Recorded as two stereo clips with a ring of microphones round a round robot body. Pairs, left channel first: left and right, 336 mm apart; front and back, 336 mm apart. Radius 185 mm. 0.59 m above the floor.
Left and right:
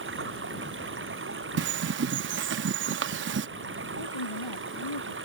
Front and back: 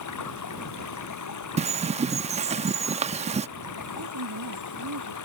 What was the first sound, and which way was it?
Running water, 35° right.